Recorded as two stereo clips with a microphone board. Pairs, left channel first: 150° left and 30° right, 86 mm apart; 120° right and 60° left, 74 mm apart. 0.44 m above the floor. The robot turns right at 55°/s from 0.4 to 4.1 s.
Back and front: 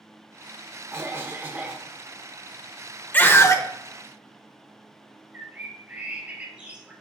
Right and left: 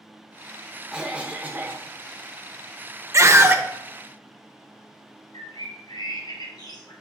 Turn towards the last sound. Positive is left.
turn(degrees=-100)